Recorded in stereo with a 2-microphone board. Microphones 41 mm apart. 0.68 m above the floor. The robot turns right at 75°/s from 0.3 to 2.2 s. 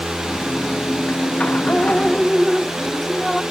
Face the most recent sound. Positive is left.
turn(degrees=175)